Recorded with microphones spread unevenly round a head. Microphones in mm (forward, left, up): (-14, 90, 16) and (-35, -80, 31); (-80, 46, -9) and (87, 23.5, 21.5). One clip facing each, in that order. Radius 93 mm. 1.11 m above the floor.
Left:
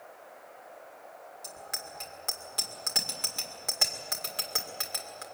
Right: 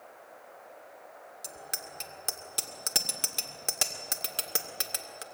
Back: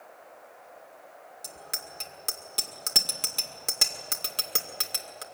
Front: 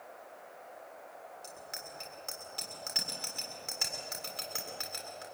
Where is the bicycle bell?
150° right, 2 m.